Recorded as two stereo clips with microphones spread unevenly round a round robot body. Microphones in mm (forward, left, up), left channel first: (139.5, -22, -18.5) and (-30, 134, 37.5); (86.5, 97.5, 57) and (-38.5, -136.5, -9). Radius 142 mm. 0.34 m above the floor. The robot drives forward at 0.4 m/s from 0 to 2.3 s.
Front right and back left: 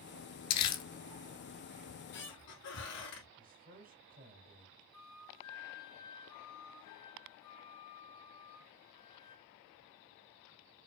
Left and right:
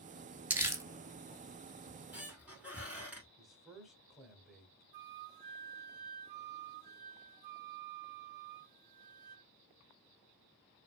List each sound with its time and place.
0.5 s crumpling: 35° right, 1.0 m; by 0.8 s 40° right, 0.9 m
1.9 s a squeak: 30° right, 2.5 m; by 3.3 s 35° right, 2 m
3.4 s a man speaking: straight behind, 1.2 m
4.9 s a flute: 120° right, 0.7 m